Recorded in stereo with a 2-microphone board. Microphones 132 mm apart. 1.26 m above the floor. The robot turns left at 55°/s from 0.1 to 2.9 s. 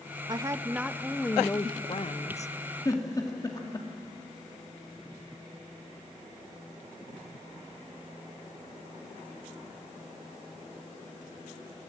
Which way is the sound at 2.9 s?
25° left (ahead or behind).